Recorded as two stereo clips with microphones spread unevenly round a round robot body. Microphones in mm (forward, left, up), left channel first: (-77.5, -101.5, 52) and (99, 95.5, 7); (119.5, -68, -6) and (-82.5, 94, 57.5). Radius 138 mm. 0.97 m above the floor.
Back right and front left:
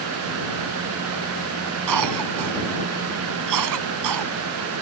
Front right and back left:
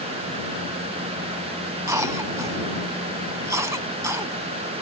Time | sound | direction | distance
1.9 | a cough | 65° left | ?